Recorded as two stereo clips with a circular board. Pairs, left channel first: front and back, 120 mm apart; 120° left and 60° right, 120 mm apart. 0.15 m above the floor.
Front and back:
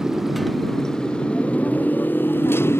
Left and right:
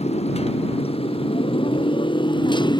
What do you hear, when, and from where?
0.0 s a motorcycle: 95° left; by 2.8 s 70° left